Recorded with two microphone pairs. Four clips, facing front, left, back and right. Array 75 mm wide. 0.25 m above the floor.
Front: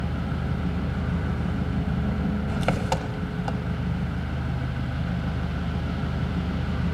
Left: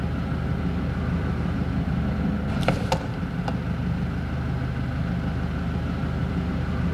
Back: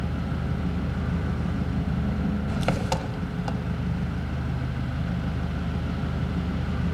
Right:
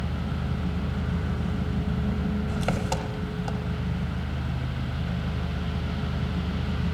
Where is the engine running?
45° left, 0.8 m.